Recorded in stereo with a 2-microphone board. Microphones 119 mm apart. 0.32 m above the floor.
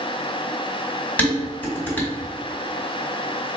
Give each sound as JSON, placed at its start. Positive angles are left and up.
{"t": 1.2, "sound": "dishes clattering", "side_deg": 15, "distance_m": 1.7}